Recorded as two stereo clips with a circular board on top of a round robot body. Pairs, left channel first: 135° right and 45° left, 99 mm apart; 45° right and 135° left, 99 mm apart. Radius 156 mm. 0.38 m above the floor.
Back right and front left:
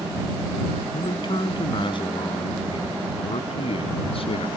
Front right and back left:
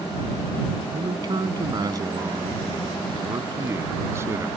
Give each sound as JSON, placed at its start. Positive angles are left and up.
{"t": 0.9, "sound": "a man speaking", "azimuth_deg": 180}